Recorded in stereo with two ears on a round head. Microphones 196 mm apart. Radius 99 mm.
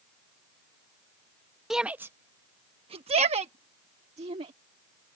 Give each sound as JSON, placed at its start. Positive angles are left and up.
{"t": 1.7, "sound": "a shout", "side_deg": 0}